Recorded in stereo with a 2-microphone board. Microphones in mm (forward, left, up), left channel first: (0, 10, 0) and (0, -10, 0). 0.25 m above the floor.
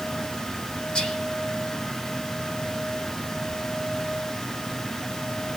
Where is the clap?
No clap in this recording.